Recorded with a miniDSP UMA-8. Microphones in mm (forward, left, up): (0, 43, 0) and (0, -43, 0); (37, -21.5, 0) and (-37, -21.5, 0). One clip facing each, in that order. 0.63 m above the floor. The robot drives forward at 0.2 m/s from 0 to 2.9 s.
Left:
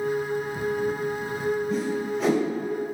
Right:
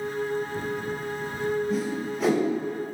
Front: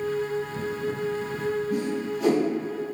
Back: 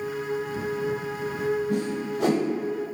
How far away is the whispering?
No whispering in this recording.